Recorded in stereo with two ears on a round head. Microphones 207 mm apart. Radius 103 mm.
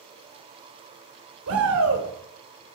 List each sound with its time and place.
1.5 s a shout: 70° right (ahead or behind), 3 m